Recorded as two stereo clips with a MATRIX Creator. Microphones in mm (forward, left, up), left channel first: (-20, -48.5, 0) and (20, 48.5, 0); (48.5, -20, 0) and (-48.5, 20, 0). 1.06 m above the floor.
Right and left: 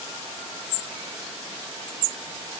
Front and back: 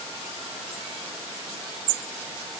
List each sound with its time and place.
Only background noise.